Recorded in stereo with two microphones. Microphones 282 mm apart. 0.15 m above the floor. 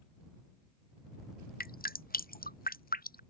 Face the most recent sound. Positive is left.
turn(degrees=30)  # may be behind; listen again after turning